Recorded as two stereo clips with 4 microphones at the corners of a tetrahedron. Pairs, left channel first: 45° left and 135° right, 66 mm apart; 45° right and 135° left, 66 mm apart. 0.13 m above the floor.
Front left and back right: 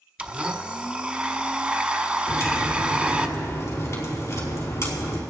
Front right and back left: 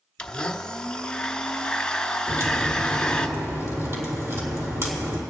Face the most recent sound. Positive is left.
turn(degrees=90)